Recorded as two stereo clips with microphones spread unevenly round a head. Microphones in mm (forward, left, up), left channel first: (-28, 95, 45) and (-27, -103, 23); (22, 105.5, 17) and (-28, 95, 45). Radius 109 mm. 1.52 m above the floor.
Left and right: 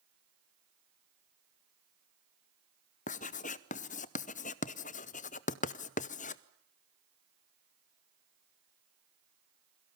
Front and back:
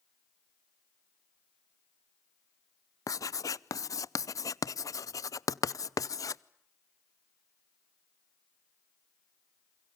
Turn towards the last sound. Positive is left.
turn(degrees=35)